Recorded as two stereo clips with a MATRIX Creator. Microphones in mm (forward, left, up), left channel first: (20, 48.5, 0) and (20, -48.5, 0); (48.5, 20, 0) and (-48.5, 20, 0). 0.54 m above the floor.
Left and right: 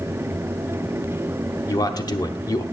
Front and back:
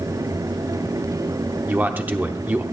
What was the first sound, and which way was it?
A man speaking, 115° left.